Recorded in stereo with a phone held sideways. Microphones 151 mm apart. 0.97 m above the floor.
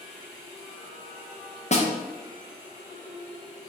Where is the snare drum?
45° left (ahead or behind), 0.7 m.